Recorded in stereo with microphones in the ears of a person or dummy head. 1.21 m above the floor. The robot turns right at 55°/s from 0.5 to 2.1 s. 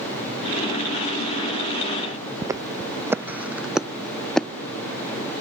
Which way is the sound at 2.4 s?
15° right (ahead or behind).